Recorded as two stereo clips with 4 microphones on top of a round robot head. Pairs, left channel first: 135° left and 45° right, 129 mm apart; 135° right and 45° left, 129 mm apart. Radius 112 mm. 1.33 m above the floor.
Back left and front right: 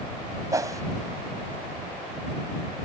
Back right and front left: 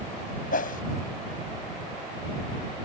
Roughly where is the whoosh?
Behind right.